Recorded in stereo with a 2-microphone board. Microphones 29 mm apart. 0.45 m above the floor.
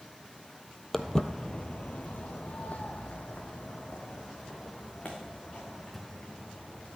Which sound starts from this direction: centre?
Footsteps, at 0.9 s.